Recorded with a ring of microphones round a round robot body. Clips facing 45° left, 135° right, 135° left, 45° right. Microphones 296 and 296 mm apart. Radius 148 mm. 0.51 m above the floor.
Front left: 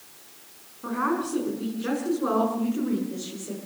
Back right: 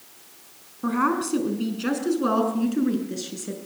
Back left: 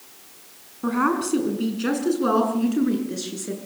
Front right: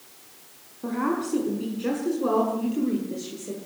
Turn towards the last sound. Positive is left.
turn(degrees=-175)